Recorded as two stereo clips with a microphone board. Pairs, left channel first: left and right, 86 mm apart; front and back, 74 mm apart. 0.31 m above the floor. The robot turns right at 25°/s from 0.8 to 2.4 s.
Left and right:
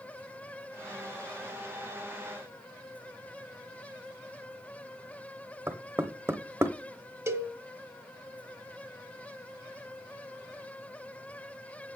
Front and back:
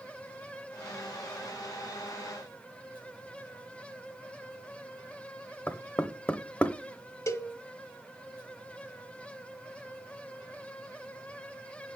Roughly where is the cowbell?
Ahead right.